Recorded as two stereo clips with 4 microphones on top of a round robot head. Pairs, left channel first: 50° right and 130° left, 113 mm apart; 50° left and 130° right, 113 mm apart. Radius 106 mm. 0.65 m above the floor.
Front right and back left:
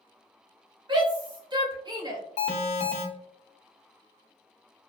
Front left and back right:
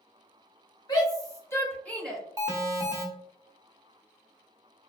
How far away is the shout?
About 1.5 m.